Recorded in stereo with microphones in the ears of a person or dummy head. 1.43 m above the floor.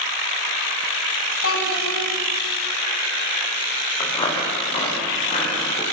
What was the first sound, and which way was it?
A child speaking, 85° left.